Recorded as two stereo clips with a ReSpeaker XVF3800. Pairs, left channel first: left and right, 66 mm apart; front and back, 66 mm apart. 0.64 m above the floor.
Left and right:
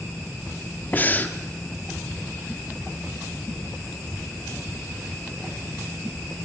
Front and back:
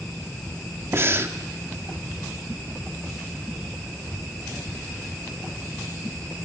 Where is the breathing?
140° left, 1.0 m.